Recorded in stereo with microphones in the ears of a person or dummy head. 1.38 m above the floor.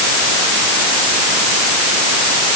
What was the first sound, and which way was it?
Only background noise.